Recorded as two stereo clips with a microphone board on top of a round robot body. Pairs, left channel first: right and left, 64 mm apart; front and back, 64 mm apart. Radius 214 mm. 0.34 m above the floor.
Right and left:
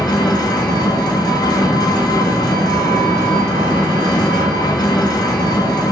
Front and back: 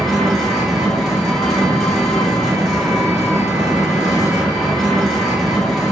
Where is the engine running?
85° right, 1.2 m.